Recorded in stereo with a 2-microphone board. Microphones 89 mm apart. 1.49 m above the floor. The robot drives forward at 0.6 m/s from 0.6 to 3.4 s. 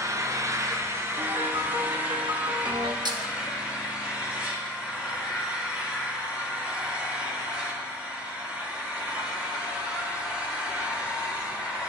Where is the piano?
50° right (ahead or behind), 1.3 m; by 3.0 s 55° right (ahead or behind), 1.2 m.